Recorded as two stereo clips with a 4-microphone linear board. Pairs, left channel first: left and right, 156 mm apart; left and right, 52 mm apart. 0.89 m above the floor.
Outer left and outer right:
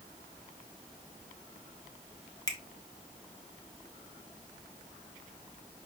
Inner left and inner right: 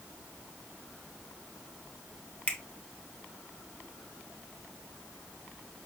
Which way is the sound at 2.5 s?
25° left (ahead or behind).